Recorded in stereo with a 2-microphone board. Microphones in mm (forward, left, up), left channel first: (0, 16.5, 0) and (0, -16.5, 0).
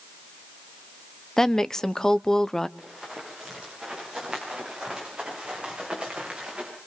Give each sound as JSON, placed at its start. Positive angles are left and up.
{"t": 1.4, "sound": "a woman speaking", "side_deg": 15, "distance_m": 0.8}
{"t": 2.8, "sound": "running footsteps", "side_deg": -5, "distance_m": 9.5}